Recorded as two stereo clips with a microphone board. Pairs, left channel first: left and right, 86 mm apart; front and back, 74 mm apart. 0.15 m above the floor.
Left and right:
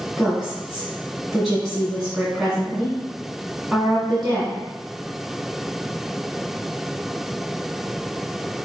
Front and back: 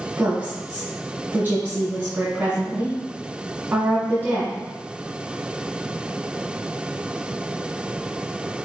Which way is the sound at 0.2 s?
170° right.